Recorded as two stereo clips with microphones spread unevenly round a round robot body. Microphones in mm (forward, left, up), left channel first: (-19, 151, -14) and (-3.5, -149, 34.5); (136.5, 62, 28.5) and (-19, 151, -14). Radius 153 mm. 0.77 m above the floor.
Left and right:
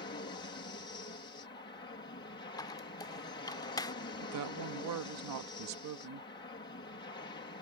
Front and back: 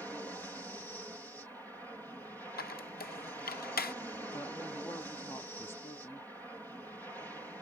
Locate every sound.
0.0 s an aircraft: 70° left
2.6 s a squeak: 15° left
4.2 s a woman speaking: 120° right